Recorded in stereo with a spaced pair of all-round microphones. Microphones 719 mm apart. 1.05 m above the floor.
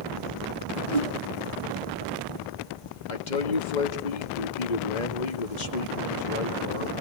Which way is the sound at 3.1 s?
80° left.